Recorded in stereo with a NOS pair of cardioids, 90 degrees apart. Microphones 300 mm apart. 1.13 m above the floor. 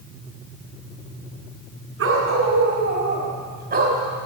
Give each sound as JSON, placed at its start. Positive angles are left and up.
{"t": 2.0, "sound": "a dog barking", "azimuth_deg": -50, "distance_m": 5.0}